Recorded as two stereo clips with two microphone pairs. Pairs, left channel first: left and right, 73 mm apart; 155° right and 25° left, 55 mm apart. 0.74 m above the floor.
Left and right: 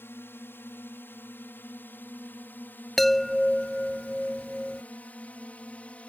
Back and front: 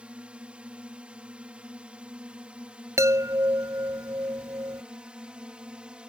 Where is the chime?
5° left.